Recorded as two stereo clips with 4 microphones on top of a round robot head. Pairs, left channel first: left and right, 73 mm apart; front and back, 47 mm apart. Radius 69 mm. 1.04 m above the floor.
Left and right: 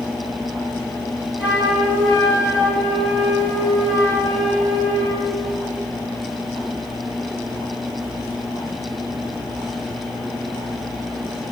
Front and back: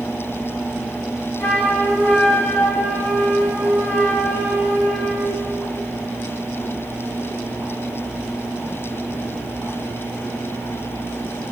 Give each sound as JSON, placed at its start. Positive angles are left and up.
{"t": 1.4, "sound": "a flute", "azimuth_deg": -10, "distance_m": 4.5}